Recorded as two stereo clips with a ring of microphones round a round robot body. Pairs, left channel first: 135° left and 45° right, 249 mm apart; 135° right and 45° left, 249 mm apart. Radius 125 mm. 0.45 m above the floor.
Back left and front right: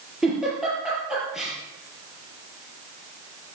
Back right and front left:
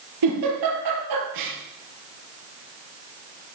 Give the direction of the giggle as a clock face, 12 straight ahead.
11 o'clock.